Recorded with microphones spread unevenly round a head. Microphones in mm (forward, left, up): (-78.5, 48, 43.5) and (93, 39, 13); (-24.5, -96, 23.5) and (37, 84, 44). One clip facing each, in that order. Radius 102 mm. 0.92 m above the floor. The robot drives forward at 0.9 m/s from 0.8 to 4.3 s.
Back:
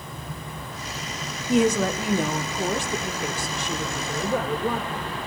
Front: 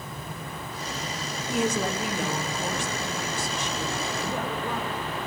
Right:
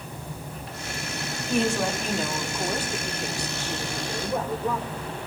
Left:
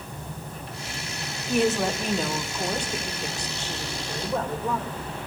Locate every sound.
1.5 s a woman speaking: 160° left, 1.7 m; by 5.1 s 170° left, 4 m